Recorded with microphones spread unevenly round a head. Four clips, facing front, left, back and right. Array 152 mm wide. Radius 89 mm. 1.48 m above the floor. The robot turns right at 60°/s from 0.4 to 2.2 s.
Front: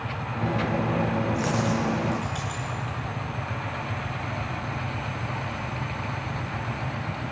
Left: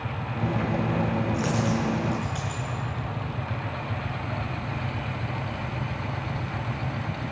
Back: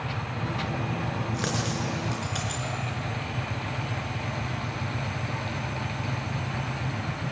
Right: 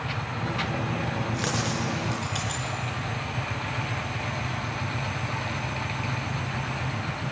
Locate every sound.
1.3 s a dropped coin: 140° left, 7 m; by 2.6 s 165° right, 7 m